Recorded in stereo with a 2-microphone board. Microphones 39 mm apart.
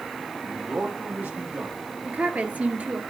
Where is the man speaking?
50° right (ahead or behind), 4 m.